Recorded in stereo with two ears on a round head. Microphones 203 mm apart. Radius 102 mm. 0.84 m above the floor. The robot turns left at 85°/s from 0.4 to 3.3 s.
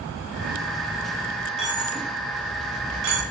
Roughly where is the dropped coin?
Left.